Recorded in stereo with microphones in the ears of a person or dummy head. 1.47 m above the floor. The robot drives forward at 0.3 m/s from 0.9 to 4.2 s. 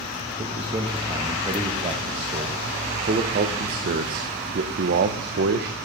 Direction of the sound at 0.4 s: 30° right (ahead or behind).